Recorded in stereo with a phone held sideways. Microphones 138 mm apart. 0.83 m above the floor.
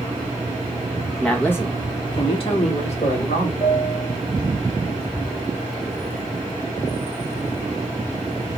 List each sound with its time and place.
1.2 s a woman speaking: 5° left (ahead or behind), 1.0 m; by 3.5 s 60° left (ahead or behind), 1.6 m
3.6 s a piano: 35° left (ahead or behind), 0.6 m